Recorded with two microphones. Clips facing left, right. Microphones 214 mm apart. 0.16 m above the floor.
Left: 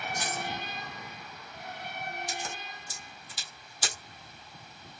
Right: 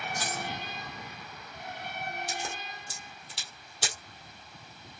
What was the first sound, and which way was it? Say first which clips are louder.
Keys jangling: even; 15° left (ahead or behind).